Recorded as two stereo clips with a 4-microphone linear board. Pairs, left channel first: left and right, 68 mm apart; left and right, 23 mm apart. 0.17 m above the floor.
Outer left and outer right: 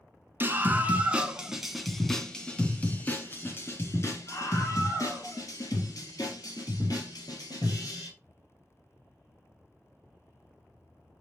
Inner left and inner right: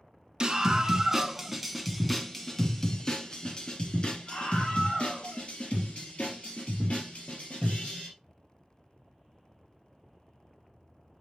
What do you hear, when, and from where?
0.4 s a scream: 30° right (ahead or behind), 1.5 m; by 8.1 s 65° left (ahead or behind), 4 m